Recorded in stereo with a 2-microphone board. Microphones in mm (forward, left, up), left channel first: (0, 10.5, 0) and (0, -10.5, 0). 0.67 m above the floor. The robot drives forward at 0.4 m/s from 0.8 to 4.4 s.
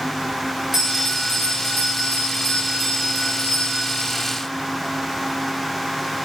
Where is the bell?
20° right (ahead or behind), 6 m; by 4.1 s 15° right (ahead or behind), 7 m.